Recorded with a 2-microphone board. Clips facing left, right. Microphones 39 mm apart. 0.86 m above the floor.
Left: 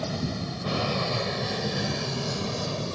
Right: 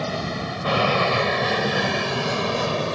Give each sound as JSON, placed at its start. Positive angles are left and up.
{"t": 0.0, "sound": "an aircraft", "side_deg": -50}